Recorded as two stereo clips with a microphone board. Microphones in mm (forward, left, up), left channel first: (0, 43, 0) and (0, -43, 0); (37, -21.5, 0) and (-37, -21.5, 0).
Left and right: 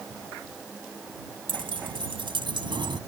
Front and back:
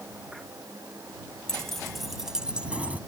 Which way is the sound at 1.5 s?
80° right.